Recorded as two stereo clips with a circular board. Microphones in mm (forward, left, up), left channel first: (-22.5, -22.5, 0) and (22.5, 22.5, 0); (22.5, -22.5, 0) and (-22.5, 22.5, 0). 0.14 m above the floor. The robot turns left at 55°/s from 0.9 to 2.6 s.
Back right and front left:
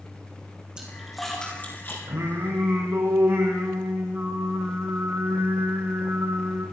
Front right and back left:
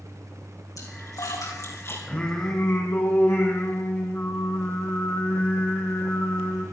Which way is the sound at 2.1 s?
25° left.